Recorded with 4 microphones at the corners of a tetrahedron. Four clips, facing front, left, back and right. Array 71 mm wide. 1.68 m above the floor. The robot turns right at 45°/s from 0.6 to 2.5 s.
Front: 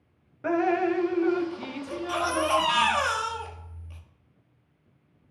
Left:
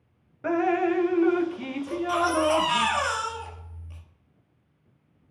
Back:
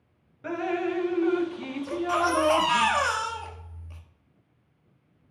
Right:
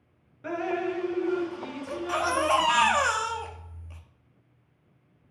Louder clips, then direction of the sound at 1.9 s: Left 3 dB, back 4 dB; 145° right.